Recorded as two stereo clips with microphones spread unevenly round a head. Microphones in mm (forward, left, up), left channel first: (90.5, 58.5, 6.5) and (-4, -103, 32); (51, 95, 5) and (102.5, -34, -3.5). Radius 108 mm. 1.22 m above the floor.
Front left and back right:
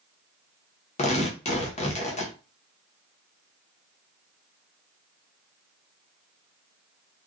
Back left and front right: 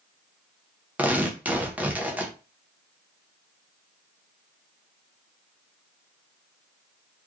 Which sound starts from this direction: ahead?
Tearing paper, at 1.0 s.